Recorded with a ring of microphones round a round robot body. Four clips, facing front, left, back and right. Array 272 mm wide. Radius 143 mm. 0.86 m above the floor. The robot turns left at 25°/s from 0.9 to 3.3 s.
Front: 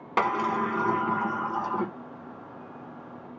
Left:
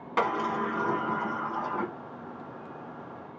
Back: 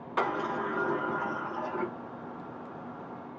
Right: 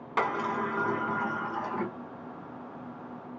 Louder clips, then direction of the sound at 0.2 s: Left 1 dB, front 5 dB; 5° right.